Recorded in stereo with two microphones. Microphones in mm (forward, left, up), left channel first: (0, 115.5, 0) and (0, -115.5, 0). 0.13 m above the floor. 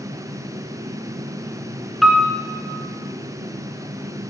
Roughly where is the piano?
Centre.